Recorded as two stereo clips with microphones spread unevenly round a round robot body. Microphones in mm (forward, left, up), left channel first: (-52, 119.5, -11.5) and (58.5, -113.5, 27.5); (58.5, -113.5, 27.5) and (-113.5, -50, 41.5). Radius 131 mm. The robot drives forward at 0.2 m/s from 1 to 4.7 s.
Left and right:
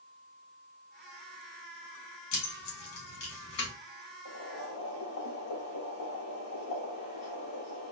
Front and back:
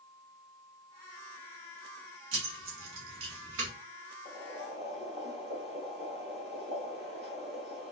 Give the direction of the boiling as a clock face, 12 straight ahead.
9 o'clock.